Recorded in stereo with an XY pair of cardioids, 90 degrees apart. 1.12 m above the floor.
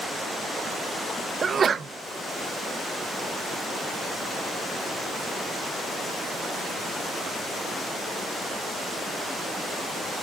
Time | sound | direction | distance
1.4 | a sneeze | 50° right | 0.6 m